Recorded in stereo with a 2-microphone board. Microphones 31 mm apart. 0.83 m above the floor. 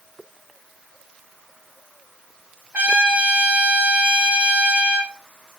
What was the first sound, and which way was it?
A trumpet, 60° right (ahead or behind).